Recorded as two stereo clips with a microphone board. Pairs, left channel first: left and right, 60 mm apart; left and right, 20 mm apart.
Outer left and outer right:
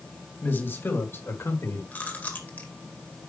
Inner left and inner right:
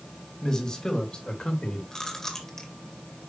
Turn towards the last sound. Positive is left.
turn(degrees=30)  # may be behind; listen again after turning